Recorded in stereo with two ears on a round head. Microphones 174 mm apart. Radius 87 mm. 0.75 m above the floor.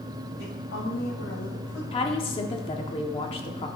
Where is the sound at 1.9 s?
30° left (ahead or behind), 1.3 m.